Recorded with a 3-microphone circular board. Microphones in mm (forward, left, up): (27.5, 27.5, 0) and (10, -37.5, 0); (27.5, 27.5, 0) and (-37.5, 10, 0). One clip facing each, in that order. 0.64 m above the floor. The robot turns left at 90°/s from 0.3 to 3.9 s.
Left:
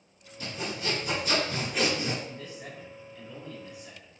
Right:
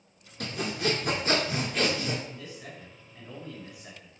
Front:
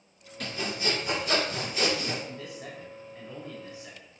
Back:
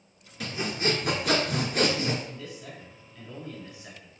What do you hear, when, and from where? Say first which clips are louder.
0.4 s sawing: right 4 dB, back 2 dB; 80° right, 1.9 m; by 2.1 s 125° left, 1.9 m
2.2 s a man speaking: left 1 dB, front 1 dB; 40° left, 3.5 m; by 4.1 s 110° right, 3.5 m